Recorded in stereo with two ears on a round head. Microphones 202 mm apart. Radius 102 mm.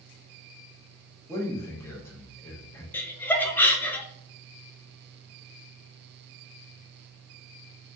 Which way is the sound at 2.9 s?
10° left (ahead or behind).